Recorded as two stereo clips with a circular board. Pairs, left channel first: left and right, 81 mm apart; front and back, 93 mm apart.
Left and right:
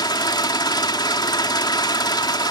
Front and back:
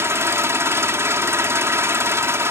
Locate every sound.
0.0 s an engine running: 120° left